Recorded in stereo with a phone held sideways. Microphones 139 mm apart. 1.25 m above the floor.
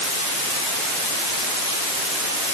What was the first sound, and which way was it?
Only background noise.